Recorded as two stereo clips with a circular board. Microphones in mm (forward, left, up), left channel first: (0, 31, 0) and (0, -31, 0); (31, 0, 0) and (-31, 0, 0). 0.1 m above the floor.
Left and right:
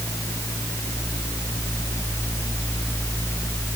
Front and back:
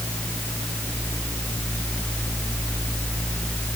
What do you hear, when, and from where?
Only background noise.